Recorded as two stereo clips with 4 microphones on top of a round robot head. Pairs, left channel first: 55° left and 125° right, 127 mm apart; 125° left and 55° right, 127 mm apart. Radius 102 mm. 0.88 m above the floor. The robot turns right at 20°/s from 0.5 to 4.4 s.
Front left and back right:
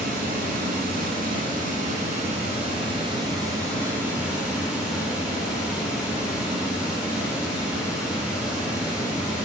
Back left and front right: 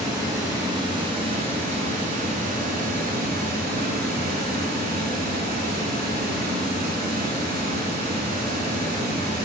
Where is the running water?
120° right, 1.9 m; by 9.5 s 40° right, 1.9 m.